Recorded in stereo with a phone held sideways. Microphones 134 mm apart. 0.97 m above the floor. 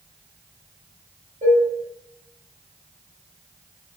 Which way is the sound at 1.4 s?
70° right (ahead or behind).